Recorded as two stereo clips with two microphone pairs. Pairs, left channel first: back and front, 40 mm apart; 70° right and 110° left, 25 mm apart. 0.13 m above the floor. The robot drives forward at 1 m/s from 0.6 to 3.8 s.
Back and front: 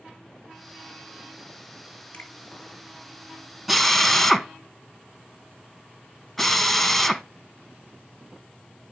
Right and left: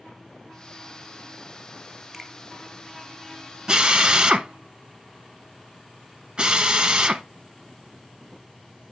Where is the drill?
85° left, 0.7 m; by 7.2 s 110° left, 0.7 m.